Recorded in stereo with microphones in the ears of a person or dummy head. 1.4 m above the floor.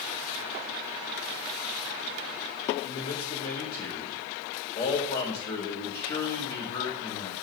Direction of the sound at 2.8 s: 40° left (ahead or behind).